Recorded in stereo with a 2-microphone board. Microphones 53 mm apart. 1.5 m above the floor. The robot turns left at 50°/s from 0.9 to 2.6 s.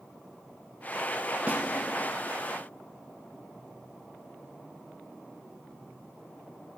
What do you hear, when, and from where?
1.5 s a snare drum: 30° right (ahead or behind), 1.0 m; by 1.6 s 25° right (ahead or behind), 1.0 m